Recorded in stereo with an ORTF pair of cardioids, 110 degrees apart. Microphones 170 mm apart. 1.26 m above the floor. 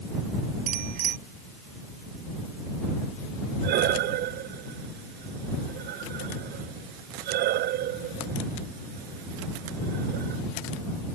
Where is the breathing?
70° right.